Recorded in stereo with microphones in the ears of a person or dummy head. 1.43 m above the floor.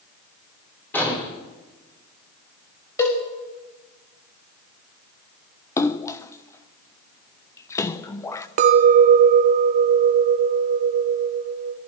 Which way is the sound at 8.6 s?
35° right (ahead or behind).